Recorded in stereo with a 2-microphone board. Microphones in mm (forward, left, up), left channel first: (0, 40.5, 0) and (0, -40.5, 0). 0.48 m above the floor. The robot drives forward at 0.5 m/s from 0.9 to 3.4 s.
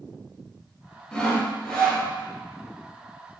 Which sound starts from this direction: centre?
Sawing, at 1.1 s.